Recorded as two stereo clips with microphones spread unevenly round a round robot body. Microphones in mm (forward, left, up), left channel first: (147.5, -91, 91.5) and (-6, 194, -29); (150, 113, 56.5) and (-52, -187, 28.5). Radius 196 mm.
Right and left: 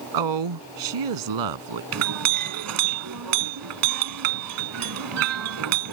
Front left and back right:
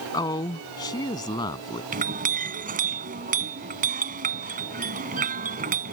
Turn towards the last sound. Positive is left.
turn(degrees=165)